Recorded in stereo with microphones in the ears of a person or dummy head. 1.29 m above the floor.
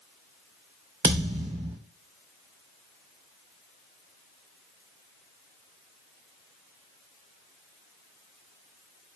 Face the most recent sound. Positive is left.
turn(degrees=-15)  # may be behind; listen again after turning